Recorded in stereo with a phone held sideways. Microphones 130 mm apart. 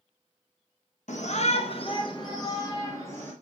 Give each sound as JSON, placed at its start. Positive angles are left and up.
{"t": 1.1, "sound": "a shout", "side_deg": 70, "distance_m": 1.2}